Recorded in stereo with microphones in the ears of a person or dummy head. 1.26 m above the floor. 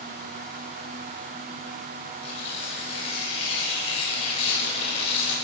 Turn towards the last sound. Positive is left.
turn(degrees=35)  # may be behind; listen again after turning